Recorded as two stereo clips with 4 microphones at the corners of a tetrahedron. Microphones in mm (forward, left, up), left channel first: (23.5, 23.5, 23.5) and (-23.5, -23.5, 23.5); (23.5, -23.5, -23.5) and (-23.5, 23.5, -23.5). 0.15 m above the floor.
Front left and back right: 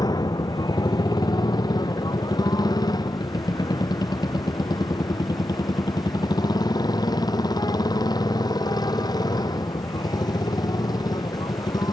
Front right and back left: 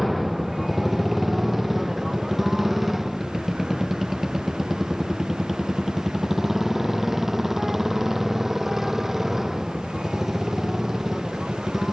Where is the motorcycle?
45° left; by 11.9 s 50° left.